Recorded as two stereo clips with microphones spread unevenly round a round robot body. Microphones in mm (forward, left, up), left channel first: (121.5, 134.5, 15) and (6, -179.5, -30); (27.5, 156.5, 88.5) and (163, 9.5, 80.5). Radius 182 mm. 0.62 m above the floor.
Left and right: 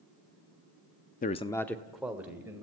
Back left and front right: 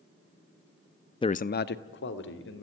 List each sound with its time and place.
1.2 s a man speaking: 110° left, 0.5 m; by 2.6 s 165° left, 2.5 m